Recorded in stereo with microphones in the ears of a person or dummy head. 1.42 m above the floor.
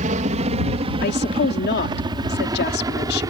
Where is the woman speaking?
60° left (ahead or behind).